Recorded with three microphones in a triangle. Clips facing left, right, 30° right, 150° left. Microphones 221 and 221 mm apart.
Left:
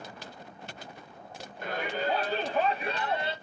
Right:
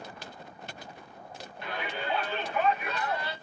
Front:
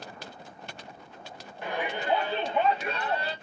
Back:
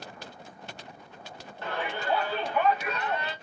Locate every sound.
1.6 s a shout: 45° left, 2.5 m; by 3.4 s 25° left, 2 m